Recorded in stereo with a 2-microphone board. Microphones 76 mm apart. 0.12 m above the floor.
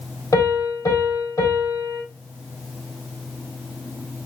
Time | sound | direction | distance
0.3 | a piano | 45° left (ahead or behind) | 3.5 m